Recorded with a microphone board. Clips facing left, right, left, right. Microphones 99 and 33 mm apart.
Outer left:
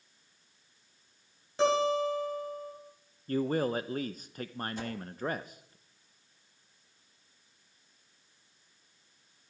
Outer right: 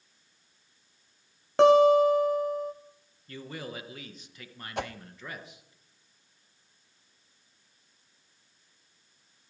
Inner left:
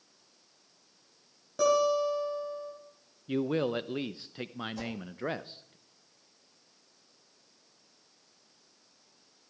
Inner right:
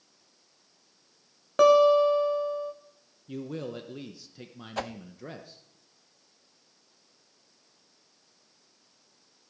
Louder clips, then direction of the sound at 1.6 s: Outer right 9 dB, inner right 7 dB; 65° right (ahead or behind).